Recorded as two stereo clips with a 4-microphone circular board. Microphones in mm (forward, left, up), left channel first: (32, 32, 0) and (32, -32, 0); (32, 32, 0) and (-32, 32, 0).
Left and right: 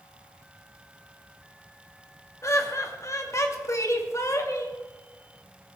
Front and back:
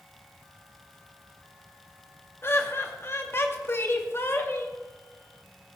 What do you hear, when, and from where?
2.4 s laughter: 50° left, 2 m